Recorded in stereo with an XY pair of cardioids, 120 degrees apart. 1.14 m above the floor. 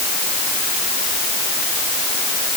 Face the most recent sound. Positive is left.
No sound to turn to.